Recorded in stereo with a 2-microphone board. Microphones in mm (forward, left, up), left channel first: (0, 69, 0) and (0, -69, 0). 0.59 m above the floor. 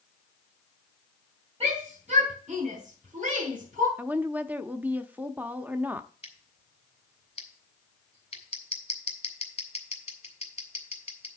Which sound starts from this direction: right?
A shout, at 1.6 s.